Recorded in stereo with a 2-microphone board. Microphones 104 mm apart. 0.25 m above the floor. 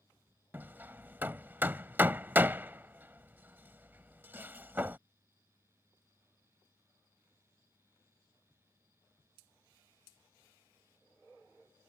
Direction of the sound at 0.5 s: 20° right (ahead or behind).